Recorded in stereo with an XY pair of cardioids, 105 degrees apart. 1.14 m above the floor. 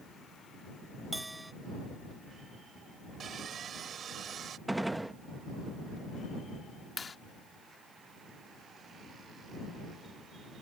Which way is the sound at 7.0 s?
30° left.